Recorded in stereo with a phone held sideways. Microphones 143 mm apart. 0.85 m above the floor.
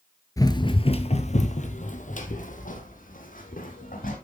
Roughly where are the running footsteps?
Left.